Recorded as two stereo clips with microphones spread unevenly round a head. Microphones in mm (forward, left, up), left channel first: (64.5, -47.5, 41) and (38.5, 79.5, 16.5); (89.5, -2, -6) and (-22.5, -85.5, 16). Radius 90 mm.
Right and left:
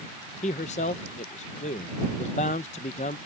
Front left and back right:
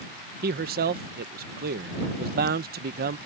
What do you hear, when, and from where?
0.4 s a man speaking: 130° right